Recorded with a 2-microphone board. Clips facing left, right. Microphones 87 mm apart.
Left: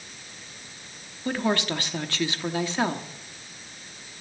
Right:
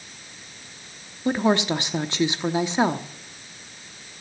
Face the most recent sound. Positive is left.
turn(degrees=-20)  # may be behind; listen again after turning